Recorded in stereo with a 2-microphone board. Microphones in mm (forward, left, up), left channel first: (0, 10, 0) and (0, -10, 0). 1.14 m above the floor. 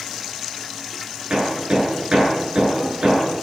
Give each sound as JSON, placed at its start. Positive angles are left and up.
{"t": 1.3, "sound": "hammering", "side_deg": -45, "distance_m": 9.5}